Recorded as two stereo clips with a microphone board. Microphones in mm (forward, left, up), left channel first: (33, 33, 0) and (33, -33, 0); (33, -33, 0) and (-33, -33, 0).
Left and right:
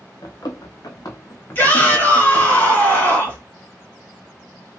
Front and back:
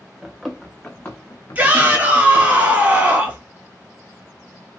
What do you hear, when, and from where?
0.2 s running footsteps: 100° left, 1.1 m; by 2.5 s straight ahead, 1.3 m
1.6 s a shout: 130° left, 2 m